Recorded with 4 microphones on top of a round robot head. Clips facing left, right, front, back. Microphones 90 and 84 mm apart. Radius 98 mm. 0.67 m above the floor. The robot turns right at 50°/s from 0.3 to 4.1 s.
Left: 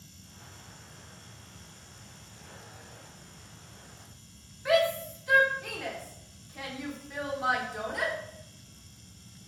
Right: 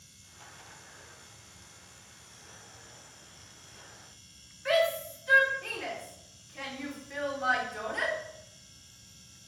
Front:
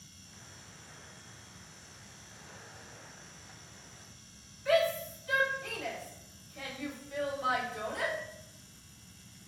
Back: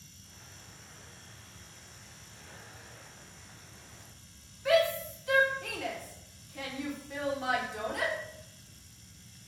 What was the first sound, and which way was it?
A shout, 170° left.